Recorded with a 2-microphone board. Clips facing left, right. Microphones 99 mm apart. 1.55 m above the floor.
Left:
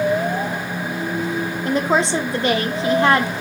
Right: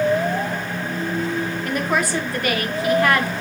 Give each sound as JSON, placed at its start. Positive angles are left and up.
{"t": 1.6, "sound": "a woman speaking", "side_deg": 25, "distance_m": 0.7}